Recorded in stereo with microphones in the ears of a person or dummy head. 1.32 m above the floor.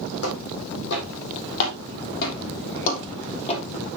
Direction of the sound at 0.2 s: 75° left (ahead or behind).